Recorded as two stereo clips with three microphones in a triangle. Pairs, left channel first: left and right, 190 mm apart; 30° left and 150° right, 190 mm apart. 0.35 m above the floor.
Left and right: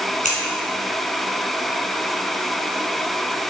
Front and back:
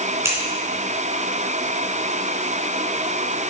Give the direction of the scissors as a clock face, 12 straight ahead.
7 o'clock.